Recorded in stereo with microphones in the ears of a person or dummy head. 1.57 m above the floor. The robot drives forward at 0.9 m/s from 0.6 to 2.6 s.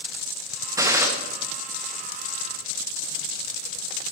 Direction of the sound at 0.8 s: 20° right (ahead or behind).